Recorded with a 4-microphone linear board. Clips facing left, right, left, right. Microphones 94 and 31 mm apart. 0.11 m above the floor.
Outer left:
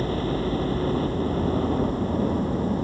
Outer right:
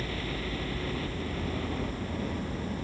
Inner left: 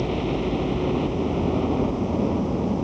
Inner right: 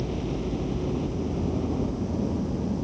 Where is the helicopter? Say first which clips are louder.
Outer left 10 dB, inner left 6 dB; 35° left (ahead or behind).